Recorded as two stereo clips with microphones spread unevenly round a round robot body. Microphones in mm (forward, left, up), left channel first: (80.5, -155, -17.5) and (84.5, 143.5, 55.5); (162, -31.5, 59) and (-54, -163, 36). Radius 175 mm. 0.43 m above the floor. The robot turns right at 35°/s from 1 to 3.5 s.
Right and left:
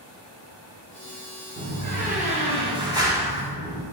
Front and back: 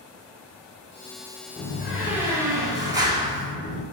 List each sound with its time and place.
1.6 s a door slam: 135° left, 0.7 m; by 3.8 s 155° right, 0.7 m